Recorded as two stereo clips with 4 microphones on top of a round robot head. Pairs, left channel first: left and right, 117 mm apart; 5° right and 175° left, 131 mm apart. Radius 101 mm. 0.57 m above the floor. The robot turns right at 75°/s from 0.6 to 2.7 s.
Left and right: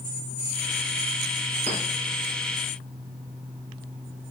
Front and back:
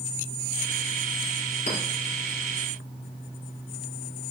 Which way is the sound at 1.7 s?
45° right.